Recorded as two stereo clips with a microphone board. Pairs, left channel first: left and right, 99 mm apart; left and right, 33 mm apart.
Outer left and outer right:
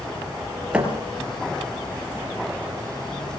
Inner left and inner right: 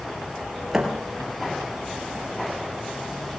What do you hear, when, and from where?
0.7 s a thud: 10° right (ahead or behind), 4 m